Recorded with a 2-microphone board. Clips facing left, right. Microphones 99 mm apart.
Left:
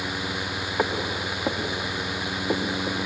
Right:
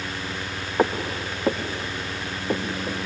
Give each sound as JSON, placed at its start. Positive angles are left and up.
{"t": 0.8, "sound": "footsteps", "side_deg": -15, "distance_m": 2.5}